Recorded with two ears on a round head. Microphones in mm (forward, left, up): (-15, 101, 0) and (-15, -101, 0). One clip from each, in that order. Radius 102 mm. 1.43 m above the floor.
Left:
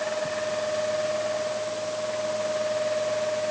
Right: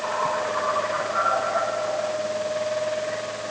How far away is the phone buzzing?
I don't hear a phone buzzing.